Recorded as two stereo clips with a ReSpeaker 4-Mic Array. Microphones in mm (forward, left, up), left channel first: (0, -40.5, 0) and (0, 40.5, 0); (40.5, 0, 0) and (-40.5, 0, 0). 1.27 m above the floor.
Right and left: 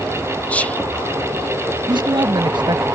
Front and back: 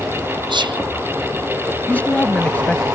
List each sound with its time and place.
0.5 s whispering: 165° right
1.9 s a man speaking: 70° left